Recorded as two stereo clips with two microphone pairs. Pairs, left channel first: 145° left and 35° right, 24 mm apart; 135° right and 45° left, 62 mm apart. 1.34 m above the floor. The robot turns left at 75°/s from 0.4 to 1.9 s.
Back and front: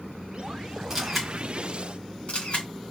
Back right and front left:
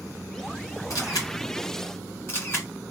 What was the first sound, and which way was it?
A camera shutter, 110° right.